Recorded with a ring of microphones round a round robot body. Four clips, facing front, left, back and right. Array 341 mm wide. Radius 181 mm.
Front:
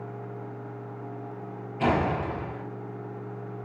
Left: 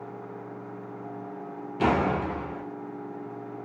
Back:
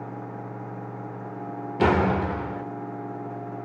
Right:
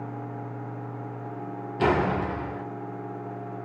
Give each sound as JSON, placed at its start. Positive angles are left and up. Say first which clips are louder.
{"t": 1.8, "sound": "a door slam", "louder": "right 1 dB, back 4 dB", "azimuth_deg": -175, "distance_m": 2.0}